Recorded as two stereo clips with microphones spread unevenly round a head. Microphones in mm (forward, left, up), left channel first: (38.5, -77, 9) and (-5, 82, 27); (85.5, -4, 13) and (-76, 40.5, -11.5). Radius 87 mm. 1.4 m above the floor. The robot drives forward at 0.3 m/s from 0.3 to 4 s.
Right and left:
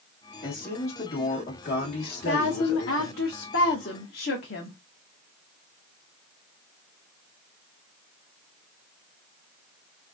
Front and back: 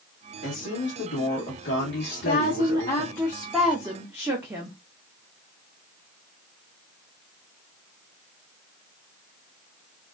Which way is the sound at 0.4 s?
25° right.